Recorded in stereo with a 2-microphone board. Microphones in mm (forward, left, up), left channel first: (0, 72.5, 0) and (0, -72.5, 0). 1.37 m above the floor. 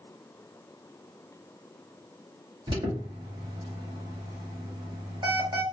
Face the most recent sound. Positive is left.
turn(degrees=-30)  # may be behind; listen again after turning